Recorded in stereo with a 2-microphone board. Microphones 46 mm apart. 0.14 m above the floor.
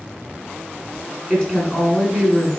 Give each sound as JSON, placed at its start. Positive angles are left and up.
{"t": 1.3, "sound": "a woman speaking", "side_deg": 10, "distance_m": 1.2}